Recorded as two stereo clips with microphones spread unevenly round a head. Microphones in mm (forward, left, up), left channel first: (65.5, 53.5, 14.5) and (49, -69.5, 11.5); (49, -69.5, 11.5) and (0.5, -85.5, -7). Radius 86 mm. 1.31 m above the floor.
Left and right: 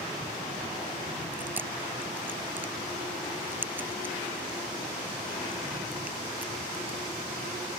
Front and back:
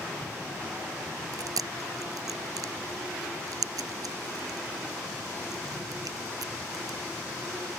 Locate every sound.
1.3 s chewing: 175° right